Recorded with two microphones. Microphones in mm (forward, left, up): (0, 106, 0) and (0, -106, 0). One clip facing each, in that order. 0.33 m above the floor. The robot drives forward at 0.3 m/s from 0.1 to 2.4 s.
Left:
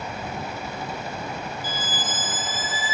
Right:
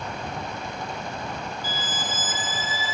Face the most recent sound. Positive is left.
turn(degrees=50)  # may be behind; listen again after turning